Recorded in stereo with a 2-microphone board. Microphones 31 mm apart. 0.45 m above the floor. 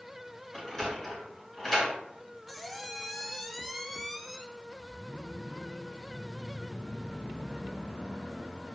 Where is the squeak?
Centre (ahead or behind), 0.5 m.